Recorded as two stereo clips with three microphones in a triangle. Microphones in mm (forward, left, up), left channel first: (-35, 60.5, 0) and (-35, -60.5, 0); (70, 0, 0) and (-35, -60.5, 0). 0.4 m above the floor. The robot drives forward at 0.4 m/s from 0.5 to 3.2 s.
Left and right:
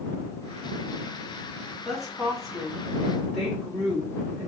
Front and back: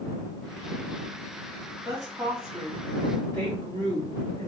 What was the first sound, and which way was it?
A woman speaking, 175° left.